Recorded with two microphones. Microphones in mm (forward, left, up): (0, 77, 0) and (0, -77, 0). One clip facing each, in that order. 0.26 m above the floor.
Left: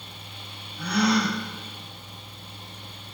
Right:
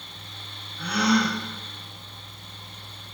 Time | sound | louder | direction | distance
0.8 | a gasp | even | 40° left (ahead or behind) | 1.5 m